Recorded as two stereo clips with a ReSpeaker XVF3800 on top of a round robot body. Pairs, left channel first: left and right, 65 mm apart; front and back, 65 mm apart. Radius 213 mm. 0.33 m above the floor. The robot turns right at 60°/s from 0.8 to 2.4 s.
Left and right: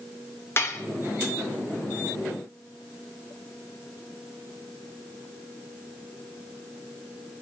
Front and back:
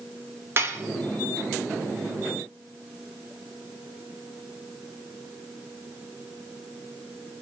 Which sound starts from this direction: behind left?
Dishes clattering, at 0.6 s.